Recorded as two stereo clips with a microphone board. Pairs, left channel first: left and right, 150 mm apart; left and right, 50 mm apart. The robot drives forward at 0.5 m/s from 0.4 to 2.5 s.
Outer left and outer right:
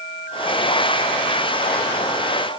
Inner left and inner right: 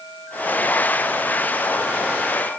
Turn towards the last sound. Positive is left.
No sound to turn to.